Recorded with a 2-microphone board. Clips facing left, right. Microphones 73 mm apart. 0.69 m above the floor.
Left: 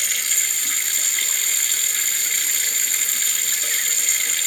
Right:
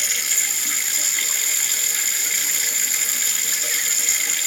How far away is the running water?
About 1.9 m.